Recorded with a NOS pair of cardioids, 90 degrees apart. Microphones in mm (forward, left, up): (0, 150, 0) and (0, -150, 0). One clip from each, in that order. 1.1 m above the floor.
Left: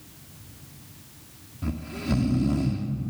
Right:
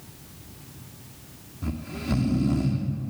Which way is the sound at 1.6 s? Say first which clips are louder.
Left 1 dB; 10° left.